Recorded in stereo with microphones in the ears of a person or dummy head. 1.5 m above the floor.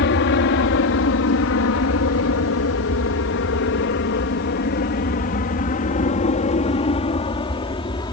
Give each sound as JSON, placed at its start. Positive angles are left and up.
{"t": 0.0, "sound": "an aircraft", "side_deg": 60}